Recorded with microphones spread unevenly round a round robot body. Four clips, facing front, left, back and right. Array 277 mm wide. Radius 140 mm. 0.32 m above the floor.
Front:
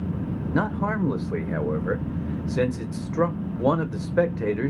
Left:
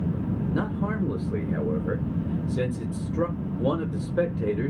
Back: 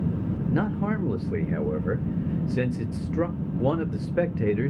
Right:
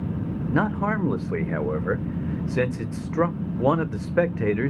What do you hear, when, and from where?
0.5 s a man speaking: 75° right, 1.0 m